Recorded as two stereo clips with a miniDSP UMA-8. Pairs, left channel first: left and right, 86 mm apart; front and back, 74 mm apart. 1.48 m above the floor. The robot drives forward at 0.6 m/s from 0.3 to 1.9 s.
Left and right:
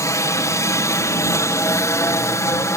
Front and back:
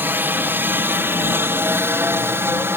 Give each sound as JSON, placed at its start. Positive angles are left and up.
{"t": 0.0, "sound": "a helicopter", "azimuth_deg": 130}